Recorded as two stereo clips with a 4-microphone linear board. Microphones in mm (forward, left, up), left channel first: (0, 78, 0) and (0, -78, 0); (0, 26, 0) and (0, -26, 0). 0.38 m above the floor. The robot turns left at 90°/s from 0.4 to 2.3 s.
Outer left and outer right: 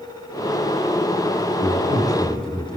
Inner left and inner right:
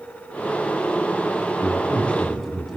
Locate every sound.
1.6 s a man speaking: 70° left, 3.5 m; by 2.8 s 5° left, 3.5 m